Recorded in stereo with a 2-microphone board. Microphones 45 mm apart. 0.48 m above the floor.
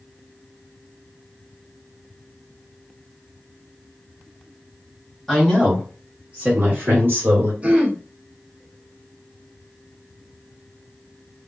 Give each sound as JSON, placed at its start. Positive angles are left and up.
{"t": 5.3, "sound": "a woman speaking", "side_deg": 5, "distance_m": 1.4}
{"t": 7.6, "sound": "throat clearing", "side_deg": -25, "distance_m": 1.0}